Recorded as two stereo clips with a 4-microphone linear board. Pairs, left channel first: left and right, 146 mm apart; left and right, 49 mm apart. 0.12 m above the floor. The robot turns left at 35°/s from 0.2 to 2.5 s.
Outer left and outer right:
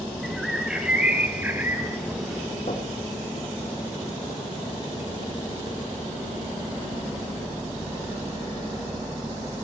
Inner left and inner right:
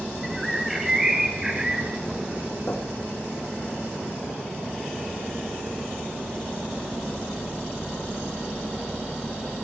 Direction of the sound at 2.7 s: 50° left (ahead or behind).